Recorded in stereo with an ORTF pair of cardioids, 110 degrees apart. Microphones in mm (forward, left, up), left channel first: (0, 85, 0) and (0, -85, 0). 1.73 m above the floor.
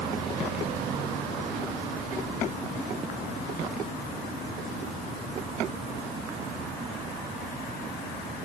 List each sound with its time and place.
Only background noise.